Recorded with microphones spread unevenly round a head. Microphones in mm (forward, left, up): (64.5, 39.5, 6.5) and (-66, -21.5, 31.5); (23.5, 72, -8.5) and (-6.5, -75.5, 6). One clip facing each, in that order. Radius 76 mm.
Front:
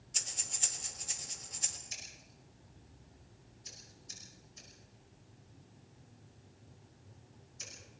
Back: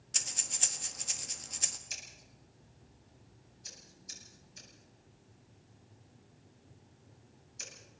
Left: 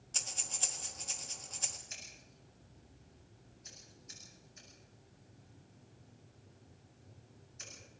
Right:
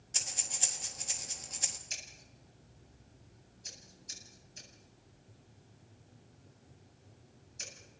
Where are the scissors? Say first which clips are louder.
Even, right 1 dB; 155° right, 8.5 m.